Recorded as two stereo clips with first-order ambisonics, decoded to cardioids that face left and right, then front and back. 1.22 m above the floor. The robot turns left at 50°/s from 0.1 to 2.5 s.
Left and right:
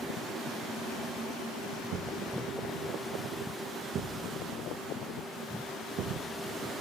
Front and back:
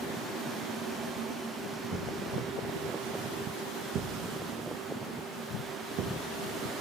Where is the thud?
105° right, 1.9 m; by 6.3 s 135° right, 1.9 m.